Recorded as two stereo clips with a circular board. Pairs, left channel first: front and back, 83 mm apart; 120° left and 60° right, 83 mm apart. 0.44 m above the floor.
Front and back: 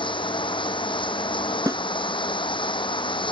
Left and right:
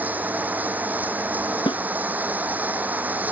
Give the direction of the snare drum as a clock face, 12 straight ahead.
8 o'clock.